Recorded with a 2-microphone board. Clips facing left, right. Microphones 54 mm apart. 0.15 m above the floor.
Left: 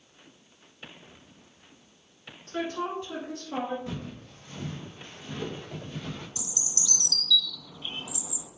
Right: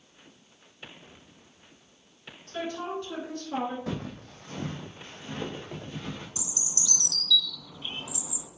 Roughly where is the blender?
No blender in this recording.